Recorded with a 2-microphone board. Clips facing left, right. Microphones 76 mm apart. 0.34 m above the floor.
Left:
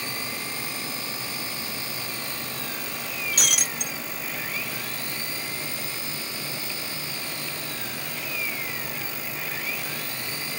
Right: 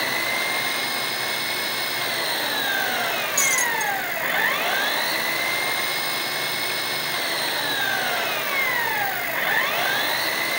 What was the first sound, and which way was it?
An engine running, 65° right (ahead or behind).